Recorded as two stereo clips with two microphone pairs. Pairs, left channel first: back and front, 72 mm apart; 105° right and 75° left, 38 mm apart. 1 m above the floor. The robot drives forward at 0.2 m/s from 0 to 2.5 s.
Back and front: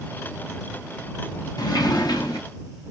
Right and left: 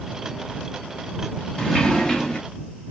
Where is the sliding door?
Straight behind, 0.7 m.